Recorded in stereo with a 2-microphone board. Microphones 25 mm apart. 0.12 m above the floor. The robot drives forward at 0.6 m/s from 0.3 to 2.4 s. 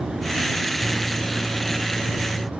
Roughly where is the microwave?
Centre.